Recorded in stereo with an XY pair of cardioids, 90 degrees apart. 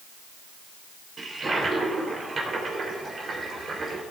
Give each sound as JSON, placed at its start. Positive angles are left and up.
{"t": 1.2, "sound": "a toilet flushing", "azimuth_deg": -45, "distance_m": 3.0}